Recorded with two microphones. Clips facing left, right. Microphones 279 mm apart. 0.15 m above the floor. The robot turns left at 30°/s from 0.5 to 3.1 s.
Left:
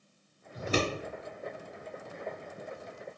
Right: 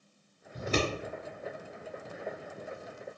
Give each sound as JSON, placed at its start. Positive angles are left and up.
{"t": 0.5, "sound": "scissors", "side_deg": -20, "distance_m": 1.7}